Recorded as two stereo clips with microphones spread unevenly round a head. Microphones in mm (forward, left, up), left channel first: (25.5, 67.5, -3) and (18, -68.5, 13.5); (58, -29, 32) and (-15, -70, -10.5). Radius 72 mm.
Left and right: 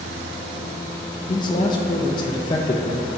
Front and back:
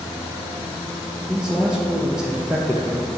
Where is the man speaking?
145° left, 0.6 m.